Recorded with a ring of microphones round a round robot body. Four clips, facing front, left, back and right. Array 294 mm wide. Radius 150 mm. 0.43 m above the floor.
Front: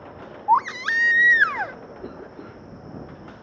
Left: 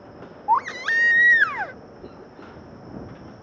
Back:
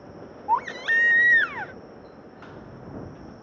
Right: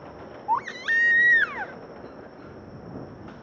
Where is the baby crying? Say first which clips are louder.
Left 5 dB, front 4 dB; 30° left.